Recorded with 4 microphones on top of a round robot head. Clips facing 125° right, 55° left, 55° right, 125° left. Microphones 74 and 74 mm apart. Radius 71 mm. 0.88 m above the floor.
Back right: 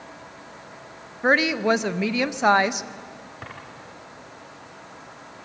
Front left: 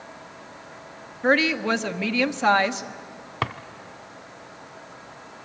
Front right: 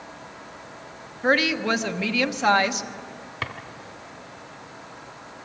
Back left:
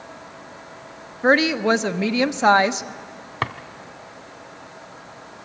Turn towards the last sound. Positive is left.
turn(degrees=75)